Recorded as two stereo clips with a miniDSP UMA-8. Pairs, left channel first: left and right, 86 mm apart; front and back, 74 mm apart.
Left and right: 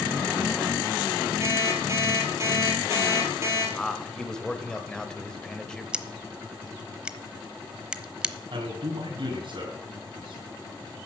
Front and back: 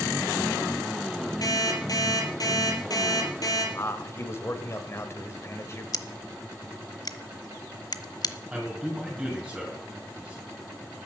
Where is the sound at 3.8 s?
15° left, 1.5 m.